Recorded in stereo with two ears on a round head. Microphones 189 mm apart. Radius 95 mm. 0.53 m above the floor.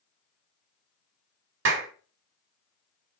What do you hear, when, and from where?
1.6 s a clap: 60° right (ahead or behind), 1.2 m